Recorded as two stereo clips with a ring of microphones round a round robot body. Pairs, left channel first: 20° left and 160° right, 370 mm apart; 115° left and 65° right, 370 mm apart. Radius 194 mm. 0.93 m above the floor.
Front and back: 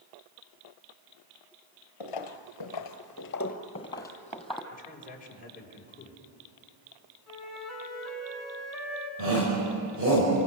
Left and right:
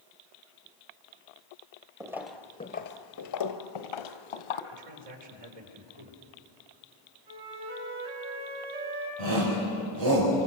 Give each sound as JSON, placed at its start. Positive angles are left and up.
{"t": 2.0, "sound": "footsteps", "azimuth_deg": 10, "distance_m": 1.6}
{"t": 4.7, "sound": "a man speaking", "azimuth_deg": -45, "distance_m": 4.5}
{"t": 7.3, "sound": "a flute", "azimuth_deg": -70, "distance_m": 6.5}
{"t": 9.2, "sound": "a shout", "azimuth_deg": -100, "distance_m": 5.5}